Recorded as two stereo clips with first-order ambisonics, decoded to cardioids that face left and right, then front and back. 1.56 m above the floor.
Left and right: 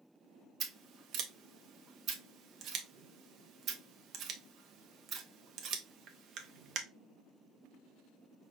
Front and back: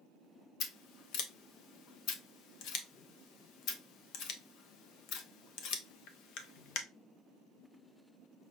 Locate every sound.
0.6 s scissors: 35° right, 0.7 m